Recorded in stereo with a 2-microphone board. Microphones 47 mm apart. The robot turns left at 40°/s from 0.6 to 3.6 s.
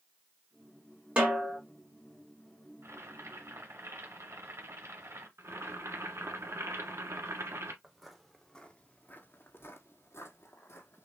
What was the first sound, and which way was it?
A snare drum, 30° right (ahead or behind).